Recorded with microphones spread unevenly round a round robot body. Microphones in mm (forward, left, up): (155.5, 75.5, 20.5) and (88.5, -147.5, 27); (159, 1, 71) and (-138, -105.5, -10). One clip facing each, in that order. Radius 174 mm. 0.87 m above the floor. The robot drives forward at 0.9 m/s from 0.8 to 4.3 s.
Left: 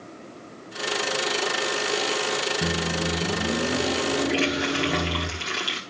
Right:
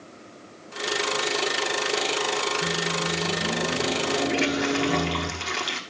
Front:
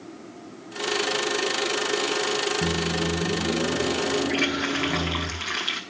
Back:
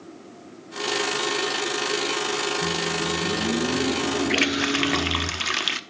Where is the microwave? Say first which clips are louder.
Left 2 dB, front 1 dB; 65° left, 0.9 m; by 5.3 s 150° left, 1.4 m.